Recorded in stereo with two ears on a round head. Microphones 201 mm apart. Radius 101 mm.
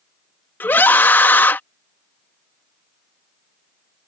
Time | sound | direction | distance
0.6 | a scream | 10° left (ahead or behind) | ?